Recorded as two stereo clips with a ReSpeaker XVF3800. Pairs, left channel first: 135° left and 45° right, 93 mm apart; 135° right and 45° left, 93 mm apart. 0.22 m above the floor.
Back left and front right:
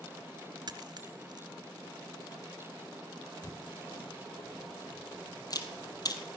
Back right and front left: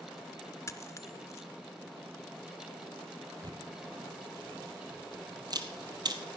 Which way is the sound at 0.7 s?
80° right.